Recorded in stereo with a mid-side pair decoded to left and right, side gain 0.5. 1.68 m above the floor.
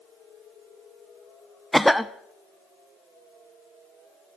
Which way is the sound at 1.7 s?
Straight ahead.